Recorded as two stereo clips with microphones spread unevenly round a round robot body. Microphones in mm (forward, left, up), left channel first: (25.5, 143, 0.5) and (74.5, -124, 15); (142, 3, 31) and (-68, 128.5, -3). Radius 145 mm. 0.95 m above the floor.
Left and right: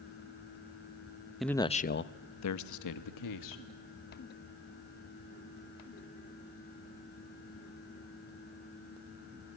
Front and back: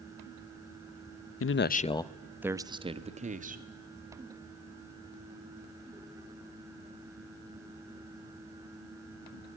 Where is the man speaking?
10° left, 0.8 m; by 3.6 s 90° left, 1.8 m.